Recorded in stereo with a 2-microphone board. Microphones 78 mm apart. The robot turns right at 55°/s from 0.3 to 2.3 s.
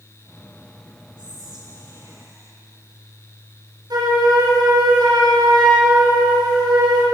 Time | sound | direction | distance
1.2 | whispering | 100° right | 3.5 m
3.9 | a flute | 65° right (ahead or behind) | 3.5 m